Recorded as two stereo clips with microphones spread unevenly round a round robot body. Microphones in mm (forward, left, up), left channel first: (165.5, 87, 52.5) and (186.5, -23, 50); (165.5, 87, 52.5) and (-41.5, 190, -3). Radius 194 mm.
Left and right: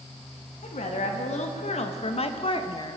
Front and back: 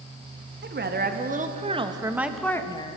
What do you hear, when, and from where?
0.6 s a woman speaking: 115° left, 1.4 m; by 3.0 s 45° left, 0.9 m